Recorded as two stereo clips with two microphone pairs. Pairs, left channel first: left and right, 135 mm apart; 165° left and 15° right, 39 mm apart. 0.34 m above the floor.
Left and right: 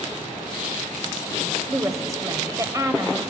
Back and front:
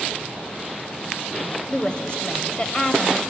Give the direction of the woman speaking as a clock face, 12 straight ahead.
5 o'clock.